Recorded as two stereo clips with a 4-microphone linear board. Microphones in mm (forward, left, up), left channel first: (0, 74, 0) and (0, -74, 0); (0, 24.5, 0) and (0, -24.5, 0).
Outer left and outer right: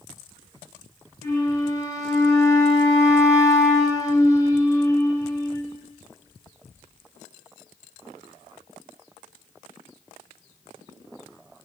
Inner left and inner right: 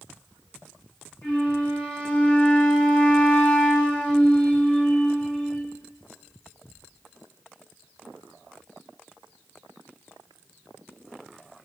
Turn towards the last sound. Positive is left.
turn(degrees=25)  # may be behind; listen again after turning